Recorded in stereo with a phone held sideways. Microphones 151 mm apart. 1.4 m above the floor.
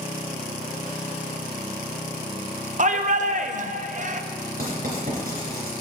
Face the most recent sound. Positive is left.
turn(degrees=-70)  # may be behind; listen again after turning